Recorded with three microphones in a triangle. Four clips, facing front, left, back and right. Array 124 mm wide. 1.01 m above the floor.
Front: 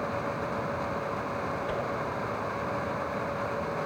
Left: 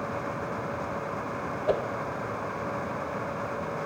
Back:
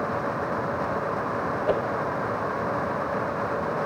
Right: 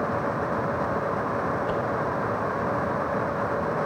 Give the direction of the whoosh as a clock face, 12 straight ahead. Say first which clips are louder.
Left 1 dB, back 11 dB; 7 o'clock.